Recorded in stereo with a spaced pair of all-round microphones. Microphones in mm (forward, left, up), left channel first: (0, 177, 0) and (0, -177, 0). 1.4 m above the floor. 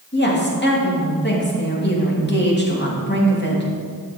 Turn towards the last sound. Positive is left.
turn(degrees=30)  # may be behind; listen again after turning